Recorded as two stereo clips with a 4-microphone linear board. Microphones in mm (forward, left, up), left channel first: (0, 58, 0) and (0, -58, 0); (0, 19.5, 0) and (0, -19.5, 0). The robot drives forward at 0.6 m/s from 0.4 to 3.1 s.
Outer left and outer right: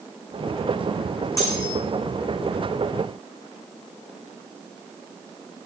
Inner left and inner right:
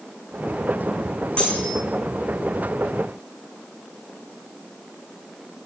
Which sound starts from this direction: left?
Cutlery clinking, at 1.4 s.